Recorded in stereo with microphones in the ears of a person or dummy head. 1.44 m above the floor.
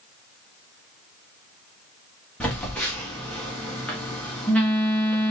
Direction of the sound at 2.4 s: 5° left (ahead or behind).